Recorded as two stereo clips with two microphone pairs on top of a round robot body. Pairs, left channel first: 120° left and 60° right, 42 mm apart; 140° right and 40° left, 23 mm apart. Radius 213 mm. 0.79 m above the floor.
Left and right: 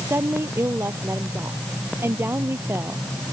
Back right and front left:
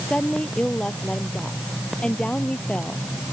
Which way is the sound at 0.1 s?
80° right.